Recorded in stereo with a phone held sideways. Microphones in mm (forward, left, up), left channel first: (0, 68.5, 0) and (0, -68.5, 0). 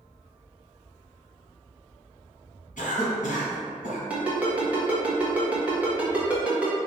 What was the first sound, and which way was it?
A cough, 60° left (ahead or behind).